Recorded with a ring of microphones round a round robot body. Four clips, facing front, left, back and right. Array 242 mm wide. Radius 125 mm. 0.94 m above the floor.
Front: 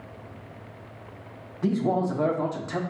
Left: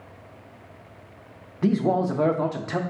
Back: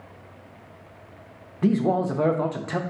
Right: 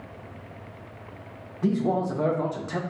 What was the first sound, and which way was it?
A man speaking, 140° left.